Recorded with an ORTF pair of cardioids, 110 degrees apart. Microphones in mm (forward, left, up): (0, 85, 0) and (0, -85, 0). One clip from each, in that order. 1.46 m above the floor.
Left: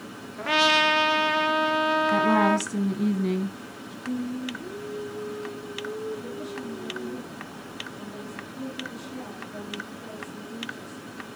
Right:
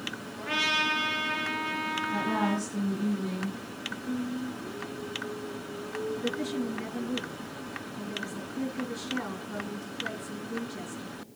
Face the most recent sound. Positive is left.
turn(degrees=-55)